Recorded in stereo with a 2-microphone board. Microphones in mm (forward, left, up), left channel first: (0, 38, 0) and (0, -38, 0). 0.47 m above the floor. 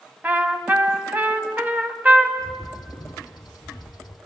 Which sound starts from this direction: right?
A trumpet, at 0.2 s.